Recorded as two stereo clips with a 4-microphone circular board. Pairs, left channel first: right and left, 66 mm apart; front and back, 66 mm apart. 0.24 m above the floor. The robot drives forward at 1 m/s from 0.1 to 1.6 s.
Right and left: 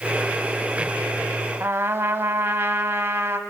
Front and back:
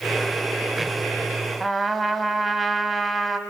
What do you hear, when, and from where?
1.6 s a trumpet: 95° left, 0.7 m